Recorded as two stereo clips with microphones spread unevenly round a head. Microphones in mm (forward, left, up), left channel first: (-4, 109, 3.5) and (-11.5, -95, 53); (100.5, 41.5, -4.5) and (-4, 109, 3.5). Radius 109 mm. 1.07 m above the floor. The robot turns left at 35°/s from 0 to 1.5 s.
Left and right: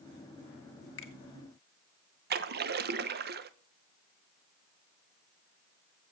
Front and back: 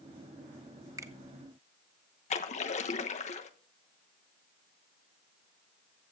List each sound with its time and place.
1.0 s a finger snap: 85° left, 1.7 m; by 1.1 s 80° left, 1.7 m
2.3 s a splash: 45° right, 0.9 m